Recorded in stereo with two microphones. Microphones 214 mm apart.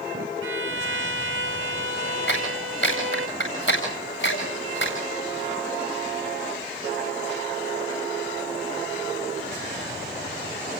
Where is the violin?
80° right, 1.9 m.